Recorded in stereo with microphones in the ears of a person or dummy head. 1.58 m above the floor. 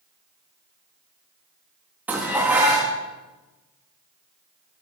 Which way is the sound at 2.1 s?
15° right (ahead or behind).